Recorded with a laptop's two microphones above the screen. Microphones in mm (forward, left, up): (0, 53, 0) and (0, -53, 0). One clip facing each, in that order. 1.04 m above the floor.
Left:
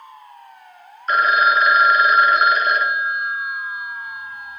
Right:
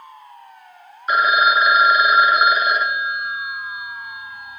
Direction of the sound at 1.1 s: 10° right (ahead or behind).